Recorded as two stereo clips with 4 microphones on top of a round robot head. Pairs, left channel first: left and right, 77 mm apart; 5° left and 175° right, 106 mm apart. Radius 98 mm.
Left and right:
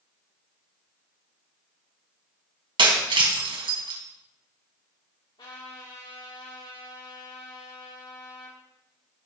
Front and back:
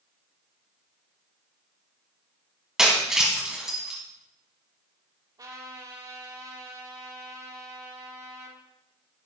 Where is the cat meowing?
No cat meowing in this recording.